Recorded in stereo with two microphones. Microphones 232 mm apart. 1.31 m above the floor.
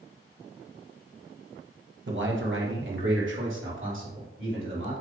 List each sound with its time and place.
2.1 s a man speaking: 55° right (ahead or behind), 1.1 m; by 4.9 s 60° right (ahead or behind), 3 m